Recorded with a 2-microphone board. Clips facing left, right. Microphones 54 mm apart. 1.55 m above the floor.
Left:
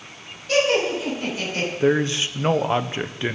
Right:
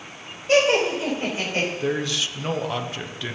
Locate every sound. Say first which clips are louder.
0.5 s laughter: right 1 dB; 35° right (ahead or behind), 7.5 m; by 1.7 s 30° right (ahead or behind), 6.5 m
1.8 s a man speaking: left 5 dB; 35° left (ahead or behind), 0.9 m